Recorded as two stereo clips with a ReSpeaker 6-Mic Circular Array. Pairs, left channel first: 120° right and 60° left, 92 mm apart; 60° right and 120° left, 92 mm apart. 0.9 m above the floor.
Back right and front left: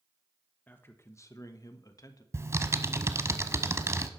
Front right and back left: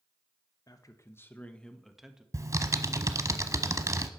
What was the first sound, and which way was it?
A man speaking, 60° right.